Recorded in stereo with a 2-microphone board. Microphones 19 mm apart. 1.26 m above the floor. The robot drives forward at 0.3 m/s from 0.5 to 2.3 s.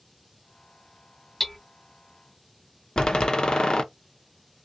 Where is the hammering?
20° left (ahead or behind), 0.7 m.